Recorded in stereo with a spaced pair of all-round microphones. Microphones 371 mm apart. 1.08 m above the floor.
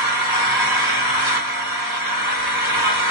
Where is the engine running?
60° left (ahead or behind), 2 m.